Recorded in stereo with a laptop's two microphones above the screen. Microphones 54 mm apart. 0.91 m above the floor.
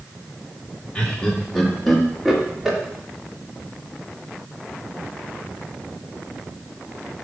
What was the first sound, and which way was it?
Laughter, 15° left (ahead or behind).